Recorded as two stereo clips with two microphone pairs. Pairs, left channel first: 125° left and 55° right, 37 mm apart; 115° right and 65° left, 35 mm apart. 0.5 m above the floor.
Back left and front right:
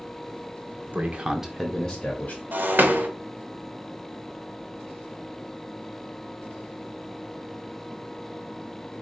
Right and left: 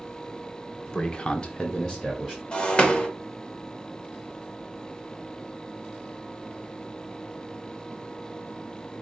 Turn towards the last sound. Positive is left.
turn(degrees=-60)